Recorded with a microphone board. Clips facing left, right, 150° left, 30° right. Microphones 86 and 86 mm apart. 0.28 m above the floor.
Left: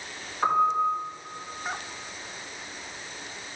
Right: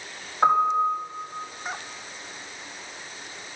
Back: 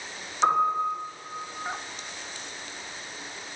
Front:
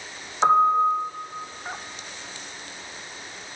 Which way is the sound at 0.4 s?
65° right.